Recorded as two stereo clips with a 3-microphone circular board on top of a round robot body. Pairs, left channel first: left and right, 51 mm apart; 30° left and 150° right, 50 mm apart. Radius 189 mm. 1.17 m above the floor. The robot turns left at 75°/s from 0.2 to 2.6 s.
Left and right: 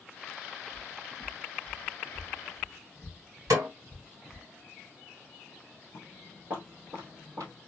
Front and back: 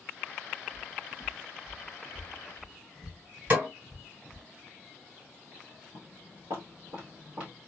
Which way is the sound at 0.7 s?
160° right.